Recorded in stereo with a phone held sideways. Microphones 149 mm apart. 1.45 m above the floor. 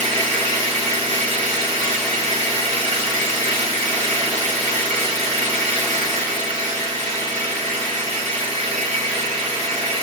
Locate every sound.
0.0 s an engine running: 35° right (ahead or behind), 1.5 m